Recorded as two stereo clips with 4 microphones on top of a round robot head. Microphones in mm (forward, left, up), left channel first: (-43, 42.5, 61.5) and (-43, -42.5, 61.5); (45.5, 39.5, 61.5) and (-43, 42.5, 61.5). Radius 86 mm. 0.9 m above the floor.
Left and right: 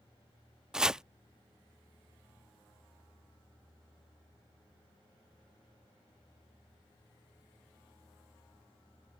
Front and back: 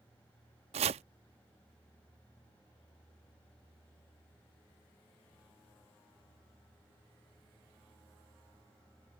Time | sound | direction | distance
0.7 | chopping | 175° right | ?